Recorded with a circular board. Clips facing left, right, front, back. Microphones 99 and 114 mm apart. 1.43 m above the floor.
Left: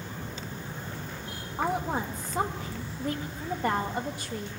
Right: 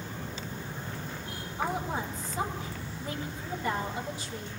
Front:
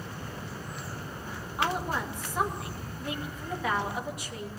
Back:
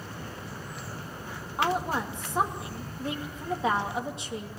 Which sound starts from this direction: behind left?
A woman speaking, at 1.6 s.